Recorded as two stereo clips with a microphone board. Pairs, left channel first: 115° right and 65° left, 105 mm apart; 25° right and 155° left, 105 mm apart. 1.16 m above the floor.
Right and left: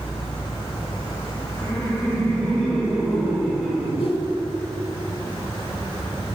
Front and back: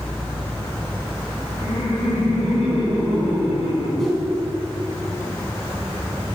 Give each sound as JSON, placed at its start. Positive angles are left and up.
{"t": 1.6, "sound": "laughter", "azimuth_deg": -35, "distance_m": 4.0}
{"t": 4.0, "sound": "a whoosh", "azimuth_deg": -110, "distance_m": 2.5}